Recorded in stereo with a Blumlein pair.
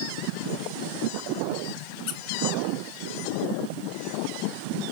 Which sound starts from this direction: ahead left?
A squeak, at 2.1 s.